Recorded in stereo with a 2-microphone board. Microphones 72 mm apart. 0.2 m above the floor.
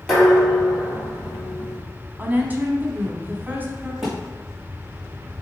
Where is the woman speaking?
25° right (ahead or behind), 1.1 m.